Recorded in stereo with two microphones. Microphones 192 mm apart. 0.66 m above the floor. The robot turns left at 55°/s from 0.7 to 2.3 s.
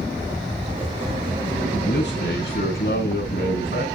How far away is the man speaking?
About 6.5 m.